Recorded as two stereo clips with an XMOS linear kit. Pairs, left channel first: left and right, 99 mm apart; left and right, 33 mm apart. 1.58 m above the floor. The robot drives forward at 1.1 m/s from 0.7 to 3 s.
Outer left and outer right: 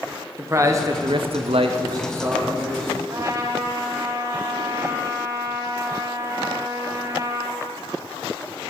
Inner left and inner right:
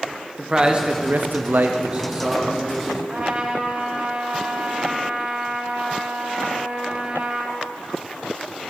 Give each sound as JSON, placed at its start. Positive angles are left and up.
{"t": 0.4, "sound": "a man speaking", "side_deg": -30, "distance_m": 0.9}
{"t": 3.1, "sound": "a trumpet", "side_deg": -35, "distance_m": 1.2}